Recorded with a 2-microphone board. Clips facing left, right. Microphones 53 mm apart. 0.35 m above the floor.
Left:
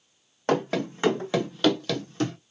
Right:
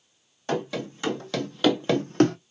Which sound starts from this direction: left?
Running footsteps, at 0.5 s.